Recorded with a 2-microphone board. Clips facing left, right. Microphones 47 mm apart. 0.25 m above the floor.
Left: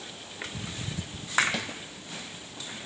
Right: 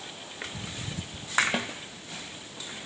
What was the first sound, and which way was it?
A snare drum, 30° right (ahead or behind).